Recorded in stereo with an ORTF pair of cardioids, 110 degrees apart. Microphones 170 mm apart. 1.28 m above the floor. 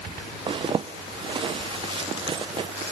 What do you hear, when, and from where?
0.5 s a zipper: 30° right, 0.8 m